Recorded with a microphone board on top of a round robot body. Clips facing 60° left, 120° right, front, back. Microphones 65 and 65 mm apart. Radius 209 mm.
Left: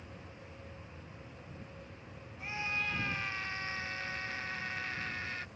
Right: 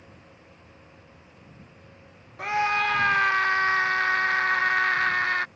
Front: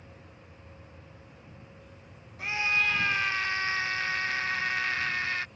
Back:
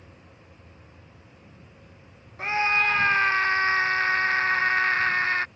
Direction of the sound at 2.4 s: 130° right.